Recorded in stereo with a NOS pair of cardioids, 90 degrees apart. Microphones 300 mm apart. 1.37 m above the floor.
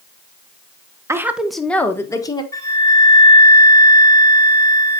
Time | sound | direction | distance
1.1 | a woman speaking | 10° right | 1.1 m
2.5 | a flute | 10° left | 1.7 m